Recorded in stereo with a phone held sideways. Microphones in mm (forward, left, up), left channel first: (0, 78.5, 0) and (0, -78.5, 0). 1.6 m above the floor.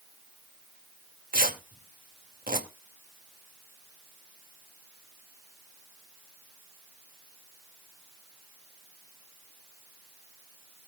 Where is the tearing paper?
65° right (ahead or behind), 2 m.